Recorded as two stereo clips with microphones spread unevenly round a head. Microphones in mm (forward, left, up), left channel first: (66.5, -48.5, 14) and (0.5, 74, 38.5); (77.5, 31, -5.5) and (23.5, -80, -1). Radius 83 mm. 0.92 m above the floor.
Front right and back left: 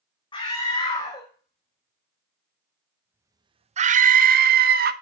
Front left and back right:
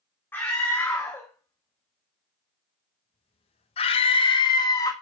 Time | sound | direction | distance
0.3 | a scream | 10° right | 2.5 m